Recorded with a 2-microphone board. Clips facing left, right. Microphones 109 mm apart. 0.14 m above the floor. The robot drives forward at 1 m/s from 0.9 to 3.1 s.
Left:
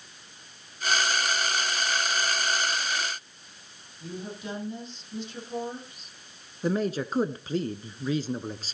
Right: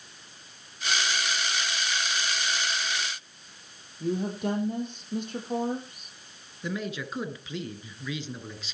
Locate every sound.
4.0 s a woman speaking: 55° right (ahead or behind), 5 m
6.6 s a man speaking: 40° left (ahead or behind), 1.4 m